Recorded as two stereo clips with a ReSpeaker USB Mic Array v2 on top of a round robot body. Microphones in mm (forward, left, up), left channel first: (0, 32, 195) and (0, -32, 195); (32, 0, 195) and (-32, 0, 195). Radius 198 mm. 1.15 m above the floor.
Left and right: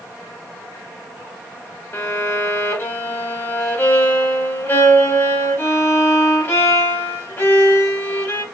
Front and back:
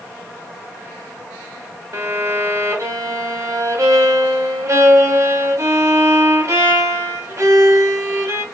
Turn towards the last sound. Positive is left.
turn(degrees=150)